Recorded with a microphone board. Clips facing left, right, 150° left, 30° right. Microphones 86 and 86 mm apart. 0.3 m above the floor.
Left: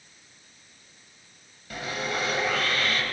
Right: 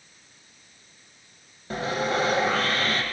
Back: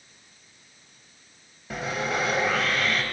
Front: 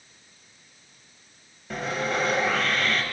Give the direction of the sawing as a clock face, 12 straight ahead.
4 o'clock.